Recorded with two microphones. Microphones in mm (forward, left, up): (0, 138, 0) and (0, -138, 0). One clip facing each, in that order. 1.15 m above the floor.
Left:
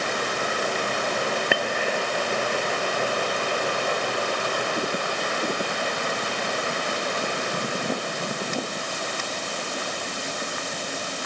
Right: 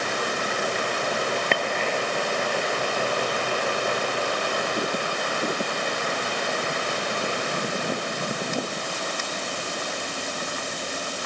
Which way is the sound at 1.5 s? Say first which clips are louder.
Left 1 dB; 10° left (ahead or behind).